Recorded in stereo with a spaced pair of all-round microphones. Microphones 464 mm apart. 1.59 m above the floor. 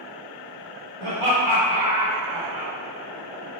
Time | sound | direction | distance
1.0 | laughter | 80° right | 1.2 m